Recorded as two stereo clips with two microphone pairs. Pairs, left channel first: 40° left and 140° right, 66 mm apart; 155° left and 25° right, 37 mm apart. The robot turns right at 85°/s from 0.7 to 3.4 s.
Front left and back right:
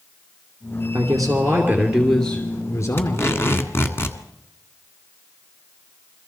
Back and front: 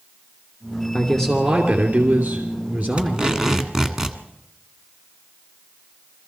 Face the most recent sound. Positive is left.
turn(degrees=50)